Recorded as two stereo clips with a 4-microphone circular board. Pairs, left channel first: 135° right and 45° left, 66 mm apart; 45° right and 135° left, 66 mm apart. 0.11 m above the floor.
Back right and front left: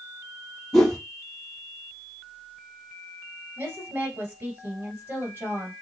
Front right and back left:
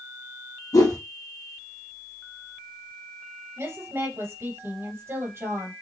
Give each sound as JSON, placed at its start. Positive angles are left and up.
{"t": 0.7, "sound": "a whoosh", "azimuth_deg": -50, "distance_m": 1.5}
{"t": 3.6, "sound": "a woman speaking", "azimuth_deg": 100, "distance_m": 2.5}